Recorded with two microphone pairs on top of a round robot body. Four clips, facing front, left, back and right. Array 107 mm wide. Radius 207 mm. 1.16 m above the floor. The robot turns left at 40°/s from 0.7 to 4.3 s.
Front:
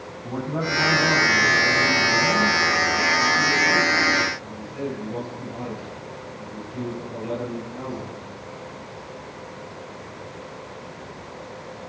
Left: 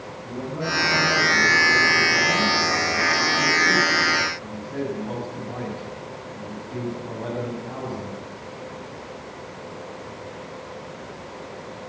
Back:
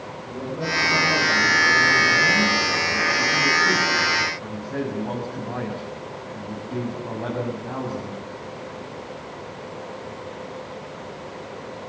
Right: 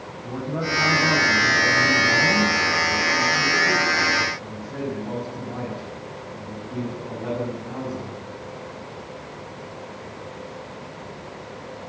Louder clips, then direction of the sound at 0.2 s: Right 2 dB, front 2 dB; 35° right.